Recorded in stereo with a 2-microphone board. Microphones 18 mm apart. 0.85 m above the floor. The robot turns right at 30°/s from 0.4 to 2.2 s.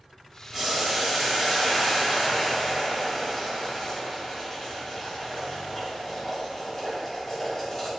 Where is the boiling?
25° right, 0.8 m; by 7.9 s 25° left, 0.8 m.